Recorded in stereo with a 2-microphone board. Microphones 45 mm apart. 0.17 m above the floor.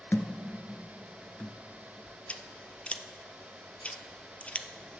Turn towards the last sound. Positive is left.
turn(degrees=25)  # may be behind; listen again after turning